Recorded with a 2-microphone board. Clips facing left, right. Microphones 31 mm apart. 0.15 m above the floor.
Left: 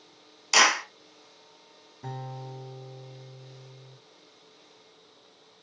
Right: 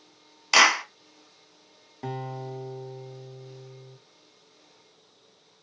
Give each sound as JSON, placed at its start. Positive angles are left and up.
{"t": 0.5, "sound": "a clap", "side_deg": -20, "distance_m": 0.8}
{"t": 2.0, "sound": "a guitar", "side_deg": -60, "distance_m": 0.6}